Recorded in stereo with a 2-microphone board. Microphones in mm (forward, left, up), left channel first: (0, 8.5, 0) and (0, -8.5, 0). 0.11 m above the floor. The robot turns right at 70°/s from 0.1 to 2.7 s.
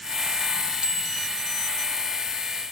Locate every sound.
0.8 s a bicycle bell: 90° right, 3 m; by 1.3 s 55° right, 3 m